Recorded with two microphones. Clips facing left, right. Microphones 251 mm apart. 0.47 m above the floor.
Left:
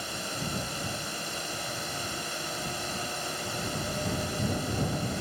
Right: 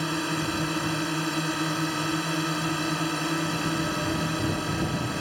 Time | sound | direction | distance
0.0 | a drone | 70° right (ahead or behind) | ?